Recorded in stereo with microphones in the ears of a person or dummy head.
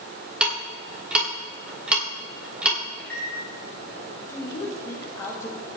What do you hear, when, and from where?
0.4 s ticking: 5° right (ahead or behind), 3 m
3.0 s a microwave: 10° left (ahead or behind), 4.5 m
4.3 s a woman speaking: 15° left (ahead or behind), 2.5 m